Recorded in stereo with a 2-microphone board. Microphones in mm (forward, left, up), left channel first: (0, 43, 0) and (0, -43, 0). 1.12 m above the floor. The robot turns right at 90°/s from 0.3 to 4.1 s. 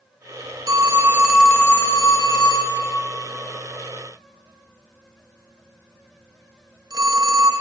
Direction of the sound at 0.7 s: 40° right (ahead or behind).